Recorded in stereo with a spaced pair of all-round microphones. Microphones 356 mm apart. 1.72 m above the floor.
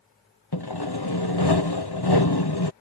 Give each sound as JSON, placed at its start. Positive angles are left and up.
{"t": 0.5, "sound": "sawing", "side_deg": 85}